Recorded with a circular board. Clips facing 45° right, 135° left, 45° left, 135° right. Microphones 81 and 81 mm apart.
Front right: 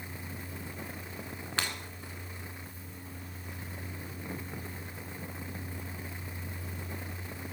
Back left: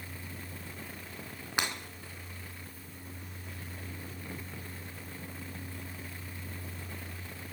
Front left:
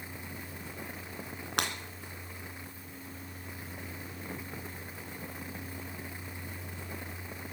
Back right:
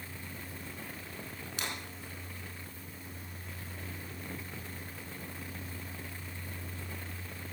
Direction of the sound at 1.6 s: 60° left.